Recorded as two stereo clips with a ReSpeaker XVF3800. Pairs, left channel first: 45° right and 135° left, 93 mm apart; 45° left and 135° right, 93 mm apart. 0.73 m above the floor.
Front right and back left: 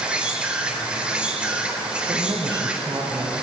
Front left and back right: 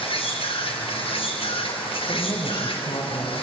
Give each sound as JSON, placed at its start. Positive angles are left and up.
{"t": 0.0, "sound": "an insect", "azimuth_deg": 55, "distance_m": 4.0}
{"t": 2.1, "sound": "a woman speaking", "azimuth_deg": 90, "distance_m": 3.5}